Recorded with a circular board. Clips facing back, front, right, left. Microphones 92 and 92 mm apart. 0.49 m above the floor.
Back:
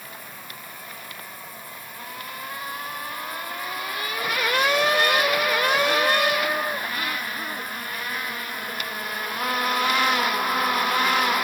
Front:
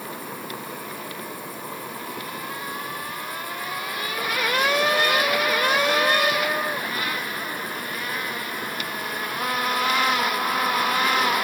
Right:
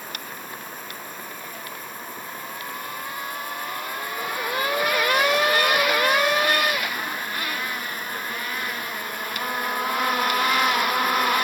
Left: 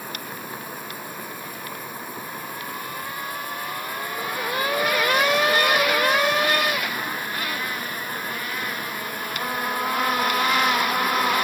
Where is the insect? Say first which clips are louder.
Front 7 dB, left 2 dB; 10° left.